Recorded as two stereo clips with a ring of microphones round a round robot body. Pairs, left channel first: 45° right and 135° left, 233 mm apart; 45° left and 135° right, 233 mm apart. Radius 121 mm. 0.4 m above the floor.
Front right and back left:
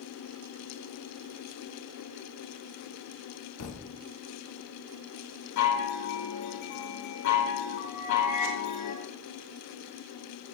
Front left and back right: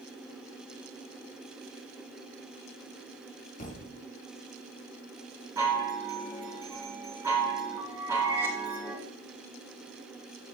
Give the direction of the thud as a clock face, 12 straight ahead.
12 o'clock.